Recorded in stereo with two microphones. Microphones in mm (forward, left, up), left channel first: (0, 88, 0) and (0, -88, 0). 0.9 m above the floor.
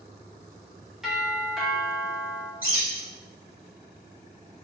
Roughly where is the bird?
Left.